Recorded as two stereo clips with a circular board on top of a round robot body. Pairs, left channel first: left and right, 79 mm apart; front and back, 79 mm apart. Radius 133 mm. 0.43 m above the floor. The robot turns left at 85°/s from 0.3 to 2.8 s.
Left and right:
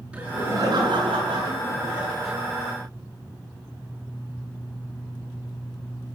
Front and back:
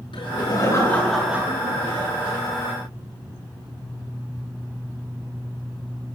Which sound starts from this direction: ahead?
Laughter, at 0.1 s.